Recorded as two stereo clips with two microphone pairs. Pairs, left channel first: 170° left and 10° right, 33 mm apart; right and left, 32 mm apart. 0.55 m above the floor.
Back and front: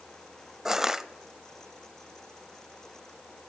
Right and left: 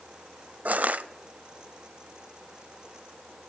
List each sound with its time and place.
0.7 s crushing: 65° left, 0.7 m